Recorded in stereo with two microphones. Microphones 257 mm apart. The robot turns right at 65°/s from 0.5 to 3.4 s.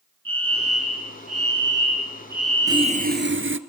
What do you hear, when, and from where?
0.2 s a fire alarm: 125° right, 9 m; by 3.1 s 45° left, 9 m
2.7 s sawing: 165° right, 1.6 m; by 3.6 s 115° right, 1.6 m